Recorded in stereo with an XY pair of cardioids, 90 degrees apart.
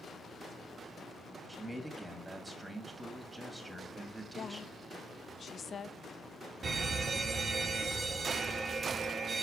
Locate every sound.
1.5 s a man speaking: 15° right, 2 m
4.3 s a woman speaking: 45° left, 0.6 m
6.6 s an alarm: 45° right, 1.4 m